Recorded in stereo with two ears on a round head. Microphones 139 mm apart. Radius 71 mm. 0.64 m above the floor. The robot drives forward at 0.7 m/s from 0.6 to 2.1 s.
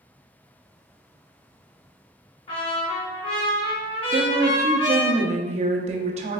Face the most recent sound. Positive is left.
turn(degrees=-45)  # may be behind; listen again after turning